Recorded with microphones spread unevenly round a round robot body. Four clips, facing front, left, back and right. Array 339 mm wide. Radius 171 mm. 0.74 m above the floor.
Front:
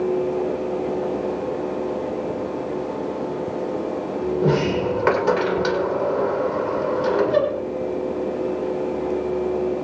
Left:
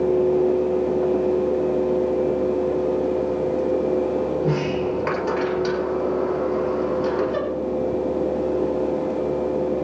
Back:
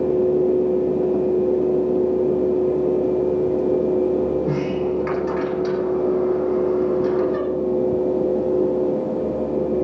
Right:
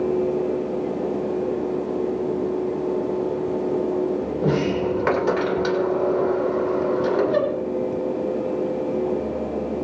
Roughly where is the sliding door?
Ahead right.